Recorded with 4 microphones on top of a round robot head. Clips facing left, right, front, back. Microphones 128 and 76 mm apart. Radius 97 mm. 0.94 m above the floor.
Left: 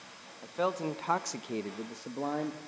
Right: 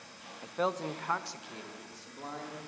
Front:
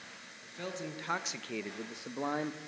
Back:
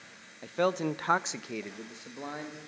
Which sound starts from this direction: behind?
A man speaking, at 0.4 s.